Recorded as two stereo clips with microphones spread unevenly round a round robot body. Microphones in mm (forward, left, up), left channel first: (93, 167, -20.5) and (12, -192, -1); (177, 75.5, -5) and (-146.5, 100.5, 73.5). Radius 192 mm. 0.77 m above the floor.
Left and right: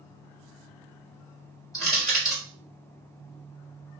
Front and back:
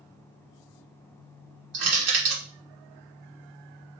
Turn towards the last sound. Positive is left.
turn(degrees=155)